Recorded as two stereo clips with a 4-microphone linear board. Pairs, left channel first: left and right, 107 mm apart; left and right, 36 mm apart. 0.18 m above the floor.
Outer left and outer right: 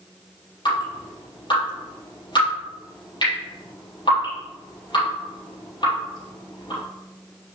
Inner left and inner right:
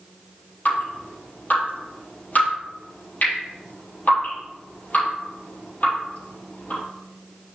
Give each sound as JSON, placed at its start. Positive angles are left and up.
{"t": 0.7, "sound": "dripping", "side_deg": 45, "distance_m": 4.0}